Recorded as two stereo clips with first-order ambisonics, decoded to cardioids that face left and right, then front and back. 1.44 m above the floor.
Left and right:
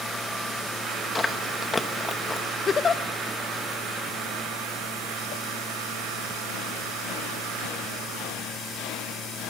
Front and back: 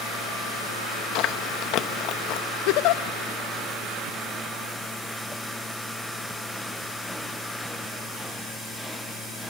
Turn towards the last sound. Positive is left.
turn(degrees=20)